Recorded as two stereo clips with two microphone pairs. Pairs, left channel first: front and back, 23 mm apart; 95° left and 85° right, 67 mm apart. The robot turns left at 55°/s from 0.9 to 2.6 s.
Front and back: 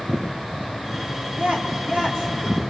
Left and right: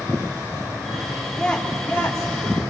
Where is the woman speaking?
Straight behind, 3 m; by 2.6 s 110° left, 3 m.